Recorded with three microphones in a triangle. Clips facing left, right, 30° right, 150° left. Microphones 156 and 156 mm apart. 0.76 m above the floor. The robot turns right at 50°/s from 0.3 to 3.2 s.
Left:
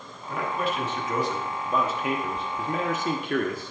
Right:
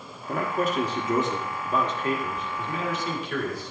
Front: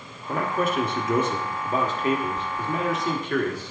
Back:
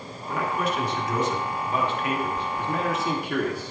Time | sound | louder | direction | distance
0.3 | a man speaking | right 2 dB, front 2 dB | 70° right | 1.2 m